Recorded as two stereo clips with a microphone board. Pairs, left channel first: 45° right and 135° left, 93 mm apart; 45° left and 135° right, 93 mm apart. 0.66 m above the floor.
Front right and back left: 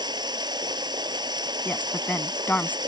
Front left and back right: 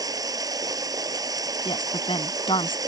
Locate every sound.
0.0 s running water: 175° left
1.6 s a woman speaking: 25° left